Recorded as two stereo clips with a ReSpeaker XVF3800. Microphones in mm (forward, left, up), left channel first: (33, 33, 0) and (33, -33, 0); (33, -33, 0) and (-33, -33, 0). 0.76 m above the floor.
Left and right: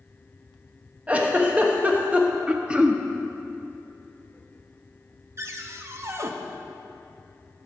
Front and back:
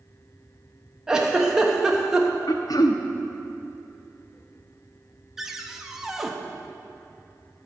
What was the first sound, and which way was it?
A giggle, 115° right.